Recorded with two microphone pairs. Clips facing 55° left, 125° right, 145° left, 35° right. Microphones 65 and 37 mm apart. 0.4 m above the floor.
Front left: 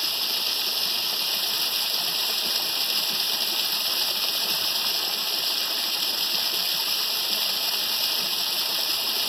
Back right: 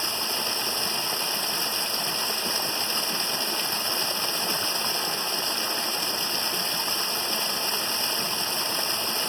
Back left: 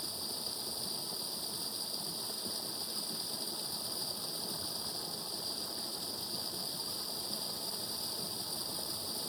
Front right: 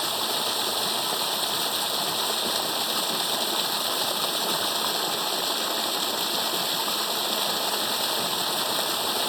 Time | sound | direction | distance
0.0 | running water | 55° right | ?